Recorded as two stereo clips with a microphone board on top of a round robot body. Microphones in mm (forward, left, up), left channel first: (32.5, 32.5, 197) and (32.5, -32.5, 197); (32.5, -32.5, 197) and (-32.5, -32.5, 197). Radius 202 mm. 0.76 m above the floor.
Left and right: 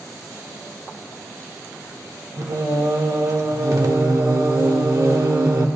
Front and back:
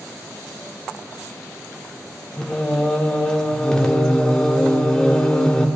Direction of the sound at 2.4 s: 75° right.